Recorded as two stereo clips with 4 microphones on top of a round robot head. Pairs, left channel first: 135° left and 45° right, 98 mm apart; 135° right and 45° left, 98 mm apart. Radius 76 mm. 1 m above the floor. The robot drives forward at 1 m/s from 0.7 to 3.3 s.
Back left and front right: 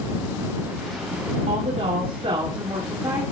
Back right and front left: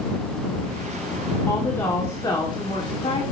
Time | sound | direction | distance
1.5 | a woman speaking | 65° right | 2.5 m